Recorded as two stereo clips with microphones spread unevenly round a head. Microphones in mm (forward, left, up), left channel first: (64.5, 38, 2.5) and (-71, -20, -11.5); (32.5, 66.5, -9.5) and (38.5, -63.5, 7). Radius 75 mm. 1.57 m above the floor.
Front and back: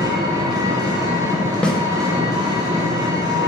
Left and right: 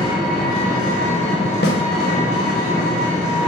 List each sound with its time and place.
0.0 s an engine running: 140° left, 1.7 m
1.6 s a snare drum: 105° left, 1.0 m